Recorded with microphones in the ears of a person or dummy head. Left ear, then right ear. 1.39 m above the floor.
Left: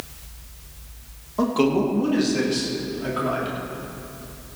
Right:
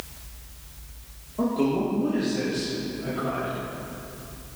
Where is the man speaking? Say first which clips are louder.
Left 4 dB; 50° left (ahead or behind), 1.6 m; by 3.5 s 60° left (ahead or behind), 3.5 m.